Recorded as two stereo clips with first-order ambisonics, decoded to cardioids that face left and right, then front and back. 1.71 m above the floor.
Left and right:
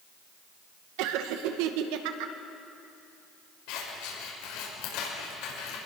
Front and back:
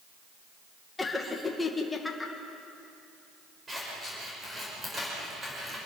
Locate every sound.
1.0 s laughter: 80° right, 2.0 m
3.7 s scissors: 105° left, 6.5 m